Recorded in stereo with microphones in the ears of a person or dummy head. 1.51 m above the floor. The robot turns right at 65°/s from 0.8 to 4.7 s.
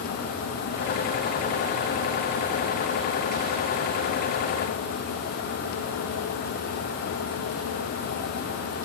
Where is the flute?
I don't hear a flute.